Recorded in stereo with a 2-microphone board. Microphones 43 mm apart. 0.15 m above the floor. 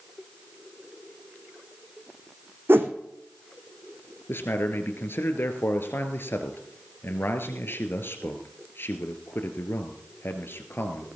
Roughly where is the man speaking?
Left.